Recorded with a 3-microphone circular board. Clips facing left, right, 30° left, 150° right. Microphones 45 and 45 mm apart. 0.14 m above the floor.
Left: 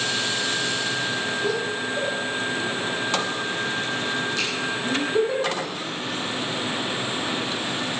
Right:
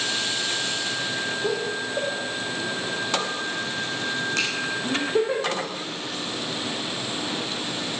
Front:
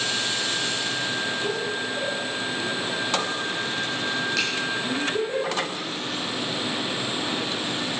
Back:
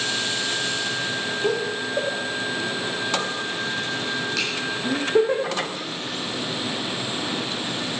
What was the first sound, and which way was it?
Laughter, 165° right.